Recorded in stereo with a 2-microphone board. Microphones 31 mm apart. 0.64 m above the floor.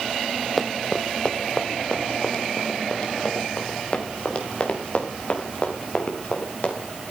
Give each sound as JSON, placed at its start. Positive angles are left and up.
{"t": 0.6, "sound": "running footsteps", "side_deg": 0, "distance_m": 1.0}